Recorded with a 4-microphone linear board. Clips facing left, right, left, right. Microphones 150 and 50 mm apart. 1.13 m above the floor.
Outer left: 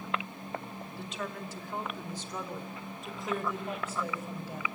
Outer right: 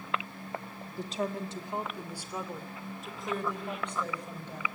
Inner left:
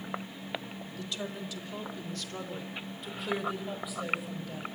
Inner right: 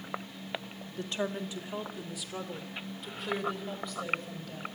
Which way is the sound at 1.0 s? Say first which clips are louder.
Outer right 7 dB, inner right 5 dB; 40° right (ahead or behind).